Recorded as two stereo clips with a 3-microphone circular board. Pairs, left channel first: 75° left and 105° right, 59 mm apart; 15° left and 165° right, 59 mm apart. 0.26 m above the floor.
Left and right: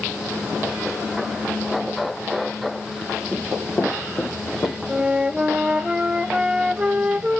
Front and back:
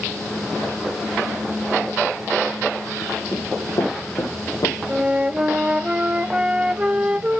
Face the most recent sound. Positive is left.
turn(degrees=-140)